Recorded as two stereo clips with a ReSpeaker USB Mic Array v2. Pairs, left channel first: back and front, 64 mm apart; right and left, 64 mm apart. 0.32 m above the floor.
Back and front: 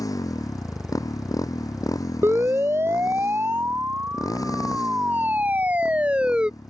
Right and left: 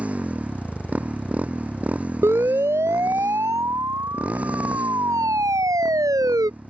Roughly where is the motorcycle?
Behind.